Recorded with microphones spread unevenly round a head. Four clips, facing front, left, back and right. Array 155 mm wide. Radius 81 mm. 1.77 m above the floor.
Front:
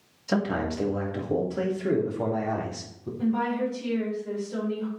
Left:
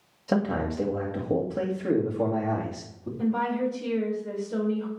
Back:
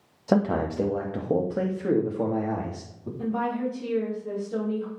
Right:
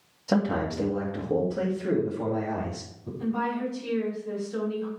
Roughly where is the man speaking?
Behind.